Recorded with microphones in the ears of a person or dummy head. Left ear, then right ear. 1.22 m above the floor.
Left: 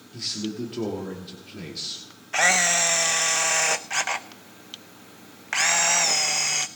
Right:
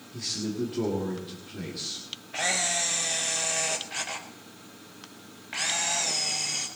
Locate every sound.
0.1 s a man speaking: 15° left (ahead or behind), 2 m
2.3 s a camera shutter: 50° left (ahead or behind), 0.5 m